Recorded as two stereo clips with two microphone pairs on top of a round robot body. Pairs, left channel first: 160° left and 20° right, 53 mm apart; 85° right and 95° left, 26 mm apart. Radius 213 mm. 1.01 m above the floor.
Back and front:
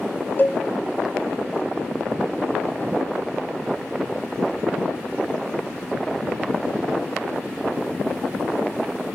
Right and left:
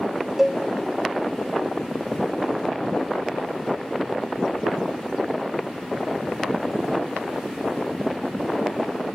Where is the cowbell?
150° left, 0.7 m.